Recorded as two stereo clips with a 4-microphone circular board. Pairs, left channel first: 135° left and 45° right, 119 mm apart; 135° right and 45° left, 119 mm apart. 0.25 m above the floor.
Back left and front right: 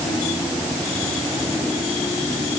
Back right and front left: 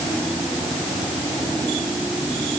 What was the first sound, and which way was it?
Only background noise.